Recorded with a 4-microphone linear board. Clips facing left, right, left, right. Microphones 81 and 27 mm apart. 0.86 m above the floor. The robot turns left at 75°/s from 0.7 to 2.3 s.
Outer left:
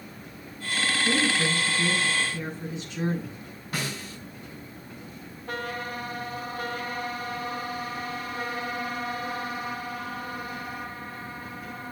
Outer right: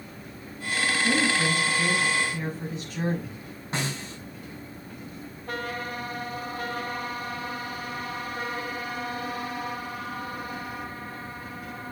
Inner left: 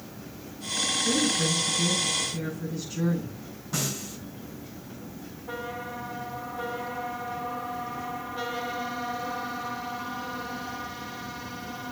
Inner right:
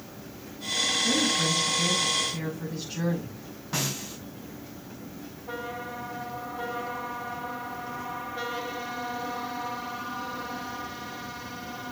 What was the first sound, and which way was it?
A woman speaking, 40° right.